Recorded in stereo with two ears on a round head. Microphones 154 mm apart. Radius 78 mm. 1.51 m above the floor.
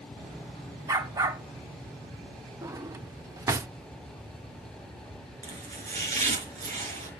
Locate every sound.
0.9 s a dog barking: 20° right (ahead or behind), 1.5 m
2.6 s a drawer: 15° right (ahead or behind), 0.8 m
5.4 s chopping: 45° right (ahead or behind), 4 m